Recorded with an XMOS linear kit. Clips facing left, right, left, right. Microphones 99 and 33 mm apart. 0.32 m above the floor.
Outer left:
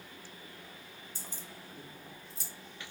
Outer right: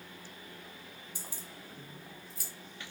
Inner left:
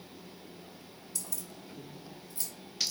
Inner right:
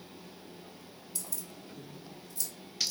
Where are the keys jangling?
15° right (ahead or behind), 0.9 m; by 2.5 s 30° left (ahead or behind), 1.2 m.